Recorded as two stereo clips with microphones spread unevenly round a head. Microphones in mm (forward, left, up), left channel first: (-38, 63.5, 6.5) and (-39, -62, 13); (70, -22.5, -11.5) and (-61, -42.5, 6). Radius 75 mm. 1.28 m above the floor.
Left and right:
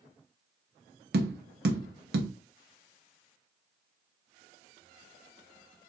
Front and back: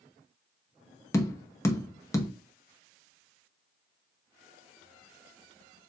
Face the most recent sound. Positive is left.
turn(degrees=-60)